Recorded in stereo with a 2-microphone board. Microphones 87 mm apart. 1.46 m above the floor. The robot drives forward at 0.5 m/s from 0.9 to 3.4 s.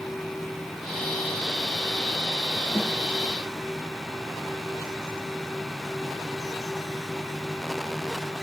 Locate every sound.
2.8 s a snare drum: 85° right, 3 m